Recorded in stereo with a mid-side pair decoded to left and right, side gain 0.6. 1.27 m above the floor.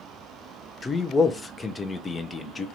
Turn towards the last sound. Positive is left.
turn(degrees=20)